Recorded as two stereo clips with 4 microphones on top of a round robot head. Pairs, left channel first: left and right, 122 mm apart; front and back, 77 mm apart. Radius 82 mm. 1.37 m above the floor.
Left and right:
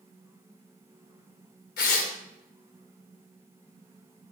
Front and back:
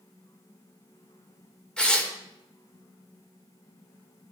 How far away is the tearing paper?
About 2.5 m.